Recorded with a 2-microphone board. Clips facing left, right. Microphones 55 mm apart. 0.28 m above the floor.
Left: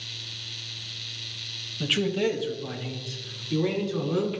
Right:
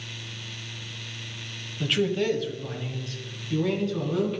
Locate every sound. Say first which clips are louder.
1.8 s a man speaking: even; centre (ahead or behind), 1.0 m; by 4.4 s 10° left (ahead or behind), 2.5 m